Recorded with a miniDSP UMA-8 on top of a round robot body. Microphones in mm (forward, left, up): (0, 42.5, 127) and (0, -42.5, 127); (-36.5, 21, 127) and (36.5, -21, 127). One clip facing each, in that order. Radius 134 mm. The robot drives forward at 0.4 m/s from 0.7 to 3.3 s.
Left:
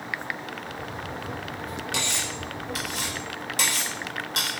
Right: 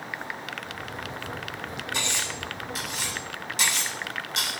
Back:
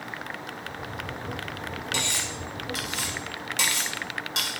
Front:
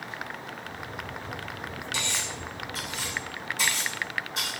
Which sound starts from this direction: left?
Cutlery clinking, at 1.9 s.